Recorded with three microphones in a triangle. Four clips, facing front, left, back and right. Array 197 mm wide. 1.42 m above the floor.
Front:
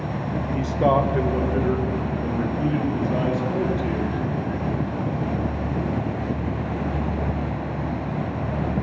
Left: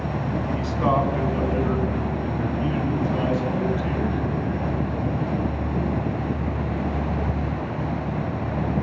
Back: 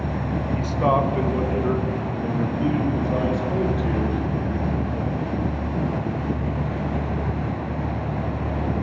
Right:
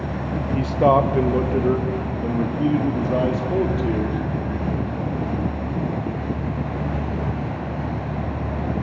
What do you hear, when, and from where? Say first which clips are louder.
0.6 s a man speaking: right 7 dB, front 1 dB; 65° right, 1.1 m; by 4.2 s 90° right, 4 m